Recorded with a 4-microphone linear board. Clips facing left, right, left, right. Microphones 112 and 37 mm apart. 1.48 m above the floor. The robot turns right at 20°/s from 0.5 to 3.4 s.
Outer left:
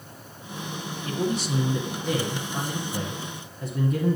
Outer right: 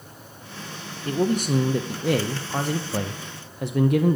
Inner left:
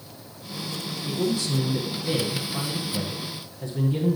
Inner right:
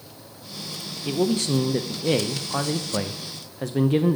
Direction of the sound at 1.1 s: 135° right.